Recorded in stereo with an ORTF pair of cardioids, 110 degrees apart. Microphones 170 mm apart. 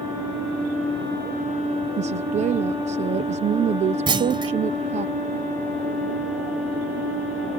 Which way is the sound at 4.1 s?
30° right.